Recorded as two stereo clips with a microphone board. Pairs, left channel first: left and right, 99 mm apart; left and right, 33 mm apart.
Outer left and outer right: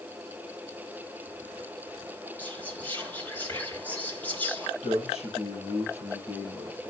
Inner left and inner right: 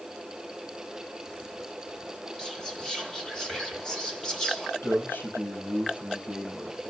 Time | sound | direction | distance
2.4 | whispering | 15° left (ahead or behind) | 3 m
4.8 | a man speaking | 70° left (ahead or behind) | 5 m